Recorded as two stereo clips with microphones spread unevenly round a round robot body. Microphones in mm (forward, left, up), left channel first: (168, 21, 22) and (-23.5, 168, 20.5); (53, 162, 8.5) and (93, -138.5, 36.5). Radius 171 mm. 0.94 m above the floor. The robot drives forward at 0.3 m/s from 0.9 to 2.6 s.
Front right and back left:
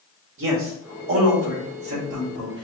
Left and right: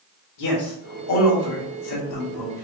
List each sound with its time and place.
0.4 s a man speaking: 115° left, 2 m; by 2.6 s 125° left, 2.5 m